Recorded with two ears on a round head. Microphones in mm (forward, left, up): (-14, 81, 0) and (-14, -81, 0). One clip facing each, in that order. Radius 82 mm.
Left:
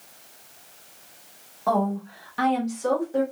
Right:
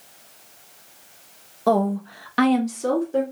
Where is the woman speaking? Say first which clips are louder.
Right 4 dB; 40° right (ahead or behind), 0.8 m; by 3.2 s 30° right (ahead or behind), 0.9 m.